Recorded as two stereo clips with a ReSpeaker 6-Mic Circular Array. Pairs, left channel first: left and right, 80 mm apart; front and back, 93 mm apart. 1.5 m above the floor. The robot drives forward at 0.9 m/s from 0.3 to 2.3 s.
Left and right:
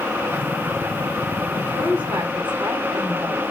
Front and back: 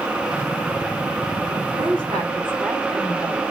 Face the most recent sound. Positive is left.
turn(degrees=-160)